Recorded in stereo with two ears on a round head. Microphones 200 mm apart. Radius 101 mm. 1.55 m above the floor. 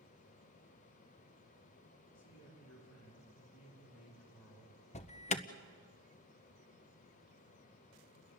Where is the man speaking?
85° left, 5.5 m.